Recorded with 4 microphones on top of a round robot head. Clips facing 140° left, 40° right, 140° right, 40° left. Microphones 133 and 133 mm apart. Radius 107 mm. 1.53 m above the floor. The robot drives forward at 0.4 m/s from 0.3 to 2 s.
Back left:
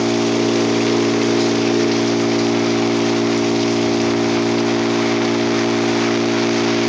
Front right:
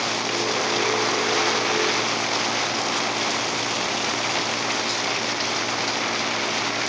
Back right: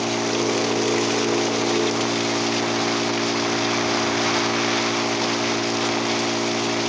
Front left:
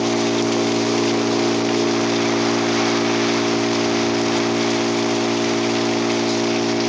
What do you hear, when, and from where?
0.0 s an engine running: 110° left